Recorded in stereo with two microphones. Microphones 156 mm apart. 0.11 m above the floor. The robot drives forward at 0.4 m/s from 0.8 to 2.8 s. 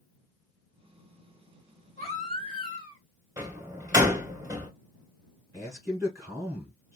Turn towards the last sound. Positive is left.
turn(degrees=-20)  # may be behind; listen again after turning